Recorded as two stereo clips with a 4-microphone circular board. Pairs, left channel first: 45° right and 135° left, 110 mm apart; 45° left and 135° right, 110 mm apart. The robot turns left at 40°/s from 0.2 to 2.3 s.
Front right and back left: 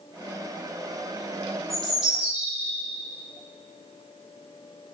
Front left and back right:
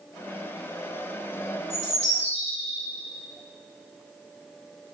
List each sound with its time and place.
1.7 s a bird: 130° right, 1.7 m; by 2.8 s 155° right, 1.7 m